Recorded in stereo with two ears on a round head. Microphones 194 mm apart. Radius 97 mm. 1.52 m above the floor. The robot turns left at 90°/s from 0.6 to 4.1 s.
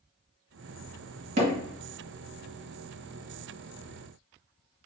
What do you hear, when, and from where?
1.4 s hammering: 35° right (ahead or behind), 1.7 m; by 1.5 s 45° right (ahead or behind), 1.7 m